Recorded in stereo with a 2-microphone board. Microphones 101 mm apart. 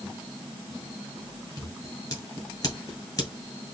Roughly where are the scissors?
Left.